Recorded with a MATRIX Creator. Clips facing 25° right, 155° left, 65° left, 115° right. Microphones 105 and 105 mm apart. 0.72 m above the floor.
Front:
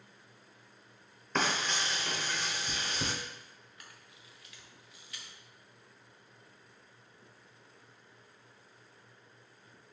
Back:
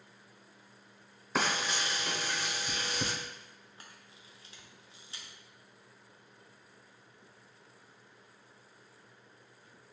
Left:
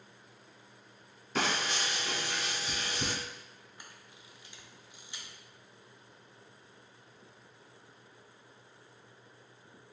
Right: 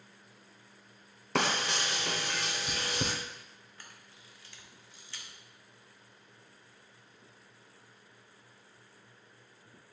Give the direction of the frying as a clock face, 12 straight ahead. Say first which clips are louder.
Even, right 2 dB; 4 o'clock.